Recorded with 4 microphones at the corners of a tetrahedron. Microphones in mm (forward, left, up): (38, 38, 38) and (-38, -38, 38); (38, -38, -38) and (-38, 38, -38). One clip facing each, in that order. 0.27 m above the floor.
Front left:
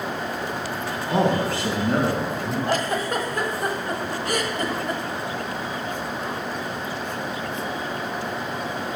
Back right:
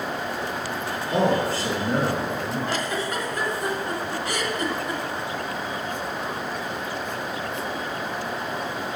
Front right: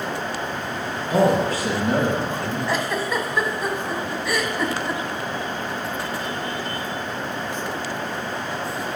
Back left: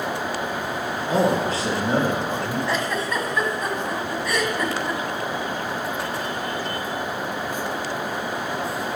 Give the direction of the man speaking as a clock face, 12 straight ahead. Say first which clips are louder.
Even, front right 2 dB; 9 o'clock.